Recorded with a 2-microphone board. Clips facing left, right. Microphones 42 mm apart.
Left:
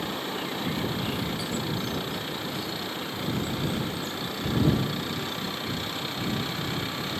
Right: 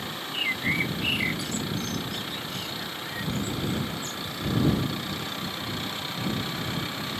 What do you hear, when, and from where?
0.3 s a bird: 60° right (ahead or behind)